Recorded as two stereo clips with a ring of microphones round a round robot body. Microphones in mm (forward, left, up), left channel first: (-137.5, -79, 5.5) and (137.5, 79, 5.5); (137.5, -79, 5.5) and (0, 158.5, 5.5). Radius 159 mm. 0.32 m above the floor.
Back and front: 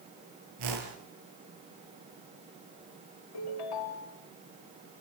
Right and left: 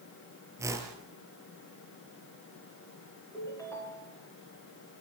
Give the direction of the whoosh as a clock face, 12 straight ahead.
11 o'clock.